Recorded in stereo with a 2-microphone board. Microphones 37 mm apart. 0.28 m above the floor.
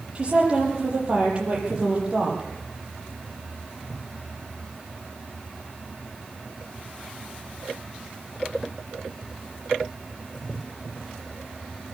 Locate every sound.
0.1 s a woman speaking: 30° right (ahead or behind), 8.5 m